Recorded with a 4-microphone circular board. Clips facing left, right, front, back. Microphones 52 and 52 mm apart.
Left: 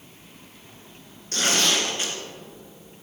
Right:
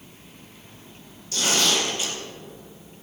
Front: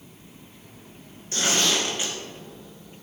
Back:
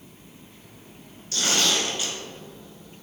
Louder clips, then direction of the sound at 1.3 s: Even, even; 60° left.